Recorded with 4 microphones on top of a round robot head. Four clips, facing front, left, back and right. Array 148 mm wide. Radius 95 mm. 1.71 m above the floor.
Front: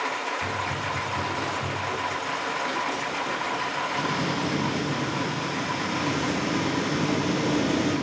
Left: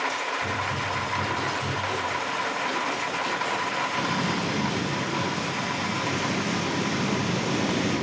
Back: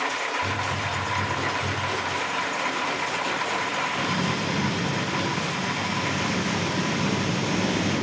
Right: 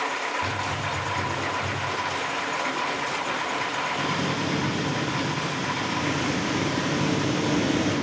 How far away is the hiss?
About 5 m.